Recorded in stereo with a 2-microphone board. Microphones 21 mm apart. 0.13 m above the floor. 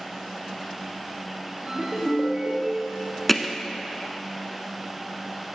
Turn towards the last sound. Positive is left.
turn(degrees=5)  # may be behind; listen again after turning